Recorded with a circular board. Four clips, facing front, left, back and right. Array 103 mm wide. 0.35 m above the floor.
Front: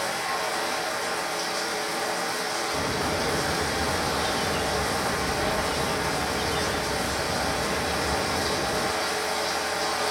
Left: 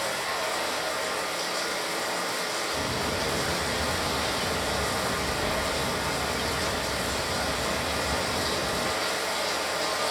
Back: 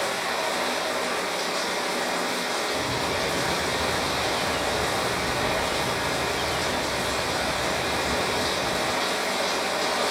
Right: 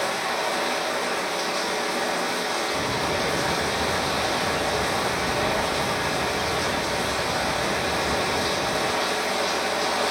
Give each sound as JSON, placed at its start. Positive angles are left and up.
{"t": 0.0, "sound": "running water", "azimuth_deg": -115, "distance_m": 0.7}
{"t": 2.7, "sound": "a bird", "azimuth_deg": -30, "distance_m": 0.8}